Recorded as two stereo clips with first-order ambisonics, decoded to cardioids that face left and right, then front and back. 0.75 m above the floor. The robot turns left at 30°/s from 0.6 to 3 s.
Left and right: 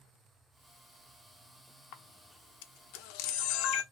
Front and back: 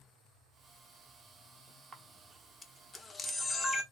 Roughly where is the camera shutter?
Left.